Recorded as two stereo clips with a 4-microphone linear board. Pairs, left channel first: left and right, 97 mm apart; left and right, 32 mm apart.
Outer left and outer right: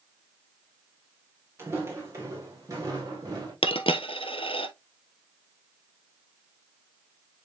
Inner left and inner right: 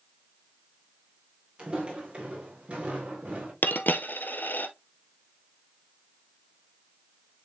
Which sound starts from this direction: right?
Footsteps, at 1.6 s.